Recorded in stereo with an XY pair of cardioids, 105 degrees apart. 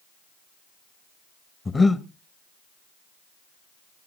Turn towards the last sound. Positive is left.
turn(degrees=25)